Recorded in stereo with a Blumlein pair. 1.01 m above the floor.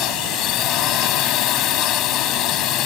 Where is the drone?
35° left.